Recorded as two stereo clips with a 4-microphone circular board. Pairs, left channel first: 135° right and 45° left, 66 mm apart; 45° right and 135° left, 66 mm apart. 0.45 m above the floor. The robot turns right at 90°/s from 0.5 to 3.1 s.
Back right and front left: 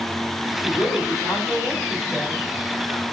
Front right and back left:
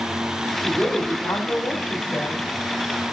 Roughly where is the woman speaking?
Behind right.